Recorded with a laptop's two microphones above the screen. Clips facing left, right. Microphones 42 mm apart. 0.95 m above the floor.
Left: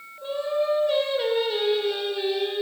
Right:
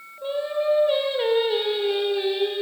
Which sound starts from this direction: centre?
Singing, at 0.2 s.